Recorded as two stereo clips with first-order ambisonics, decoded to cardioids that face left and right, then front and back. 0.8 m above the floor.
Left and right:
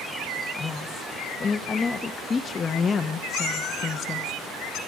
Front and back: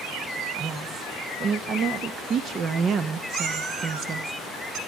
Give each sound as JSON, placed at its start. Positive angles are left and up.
{"t": 0.6, "sound": "a woman speaking", "azimuth_deg": 150, "distance_m": 0.6}
{"t": 3.3, "sound": "a cat meowing", "azimuth_deg": 140, "distance_m": 1.6}